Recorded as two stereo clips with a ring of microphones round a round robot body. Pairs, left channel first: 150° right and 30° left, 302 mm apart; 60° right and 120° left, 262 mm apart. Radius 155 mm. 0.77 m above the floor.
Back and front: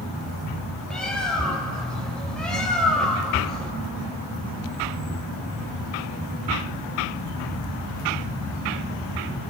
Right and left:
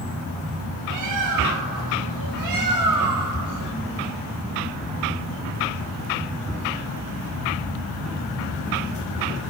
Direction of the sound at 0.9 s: 120° left.